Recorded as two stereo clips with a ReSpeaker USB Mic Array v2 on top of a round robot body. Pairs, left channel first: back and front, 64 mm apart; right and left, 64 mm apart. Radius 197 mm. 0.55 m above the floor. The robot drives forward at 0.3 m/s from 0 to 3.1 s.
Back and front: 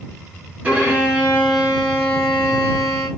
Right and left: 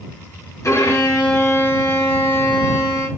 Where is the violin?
65° right, 2.0 m; by 3.1 s 90° right, 1.8 m.